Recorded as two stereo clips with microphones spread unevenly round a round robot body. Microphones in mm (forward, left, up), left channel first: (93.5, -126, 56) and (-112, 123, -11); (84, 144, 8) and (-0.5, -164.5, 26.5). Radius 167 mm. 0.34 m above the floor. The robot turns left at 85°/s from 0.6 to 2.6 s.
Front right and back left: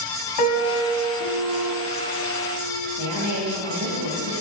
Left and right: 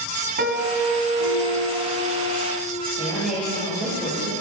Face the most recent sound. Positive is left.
turn(degrees=165)